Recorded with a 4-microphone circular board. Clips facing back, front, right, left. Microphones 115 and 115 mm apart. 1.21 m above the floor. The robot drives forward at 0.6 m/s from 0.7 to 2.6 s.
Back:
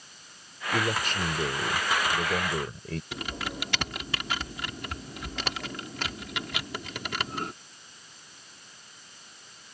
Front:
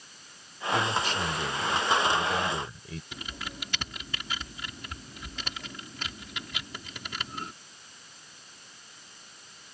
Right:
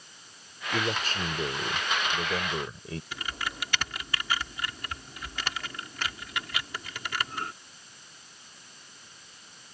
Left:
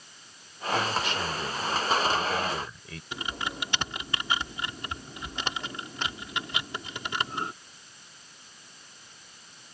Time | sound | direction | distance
0.7 | a man speaking | 140° right | ?
3.1 | typing on a keyboard | 160° left | ?